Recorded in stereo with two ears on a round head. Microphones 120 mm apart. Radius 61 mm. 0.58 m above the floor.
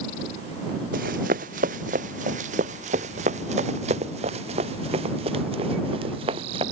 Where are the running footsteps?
75° right (ahead or behind); by 6.6 s 45° right (ahead or behind).